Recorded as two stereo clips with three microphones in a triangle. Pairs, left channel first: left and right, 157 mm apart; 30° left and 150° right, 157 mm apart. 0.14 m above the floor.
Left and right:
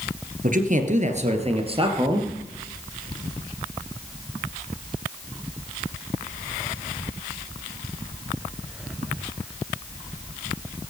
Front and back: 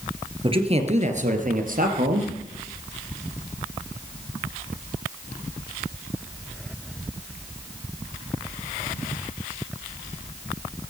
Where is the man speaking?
100° right, 3 m; by 2.3 s 150° right, 3.5 m.